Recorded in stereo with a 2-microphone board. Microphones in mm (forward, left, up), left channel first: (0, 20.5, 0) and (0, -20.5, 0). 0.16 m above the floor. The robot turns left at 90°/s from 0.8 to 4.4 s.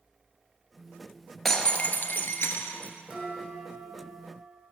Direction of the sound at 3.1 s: 155° right.